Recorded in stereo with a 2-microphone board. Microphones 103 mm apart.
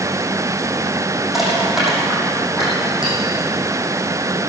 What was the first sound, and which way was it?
Crushing, 5° right (ahead or behind).